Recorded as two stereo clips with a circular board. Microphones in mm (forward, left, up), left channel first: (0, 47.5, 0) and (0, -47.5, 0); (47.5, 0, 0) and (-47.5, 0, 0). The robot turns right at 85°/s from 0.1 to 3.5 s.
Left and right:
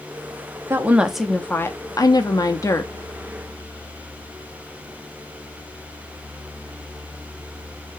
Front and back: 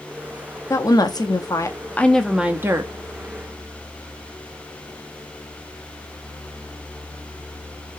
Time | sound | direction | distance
0.7 | a woman speaking | 40° right | 0.6 m